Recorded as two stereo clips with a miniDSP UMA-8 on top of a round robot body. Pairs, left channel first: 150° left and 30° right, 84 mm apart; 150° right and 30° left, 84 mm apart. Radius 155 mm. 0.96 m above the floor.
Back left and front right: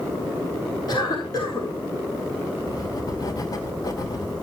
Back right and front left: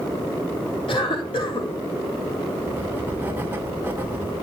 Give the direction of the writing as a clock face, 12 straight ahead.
9 o'clock.